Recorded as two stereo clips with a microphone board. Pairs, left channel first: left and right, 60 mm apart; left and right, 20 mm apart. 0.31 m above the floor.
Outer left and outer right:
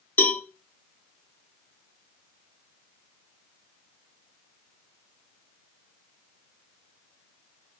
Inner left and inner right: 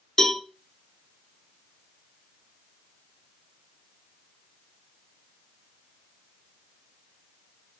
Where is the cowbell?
35° left (ahead or behind), 1.1 m.